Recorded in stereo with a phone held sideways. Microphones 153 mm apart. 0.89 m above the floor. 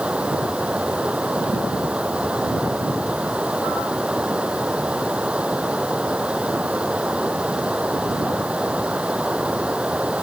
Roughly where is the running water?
Centre.